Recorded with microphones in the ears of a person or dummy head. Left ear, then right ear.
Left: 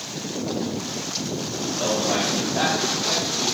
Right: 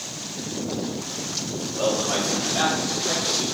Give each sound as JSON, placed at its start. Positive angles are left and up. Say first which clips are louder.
{"t": 1.8, "sound": "a man speaking", "louder": "even", "side_deg": -65, "distance_m": 2.0}